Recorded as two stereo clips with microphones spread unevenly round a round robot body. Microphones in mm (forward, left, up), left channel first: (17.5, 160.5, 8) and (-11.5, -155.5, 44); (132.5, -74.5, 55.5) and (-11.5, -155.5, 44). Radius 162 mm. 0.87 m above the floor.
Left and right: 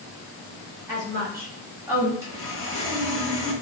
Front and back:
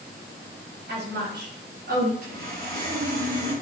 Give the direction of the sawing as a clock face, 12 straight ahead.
6 o'clock.